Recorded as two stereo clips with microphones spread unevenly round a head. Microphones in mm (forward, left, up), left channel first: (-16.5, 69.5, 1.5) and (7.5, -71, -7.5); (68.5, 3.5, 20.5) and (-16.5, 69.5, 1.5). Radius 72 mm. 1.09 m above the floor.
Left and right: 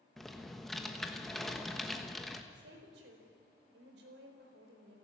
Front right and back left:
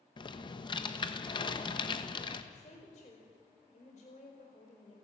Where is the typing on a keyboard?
10° left, 1.4 m.